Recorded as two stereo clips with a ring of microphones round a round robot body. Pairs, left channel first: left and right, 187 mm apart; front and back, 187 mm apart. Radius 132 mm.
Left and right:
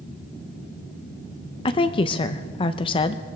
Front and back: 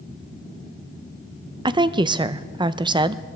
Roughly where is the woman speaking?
Behind left.